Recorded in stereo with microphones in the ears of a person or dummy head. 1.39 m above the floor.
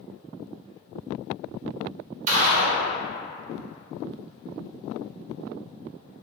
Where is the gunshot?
40° right (ahead or behind), 0.9 m.